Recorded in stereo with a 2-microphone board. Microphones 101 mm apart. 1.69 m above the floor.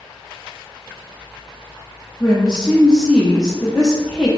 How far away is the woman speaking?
About 0.5 m.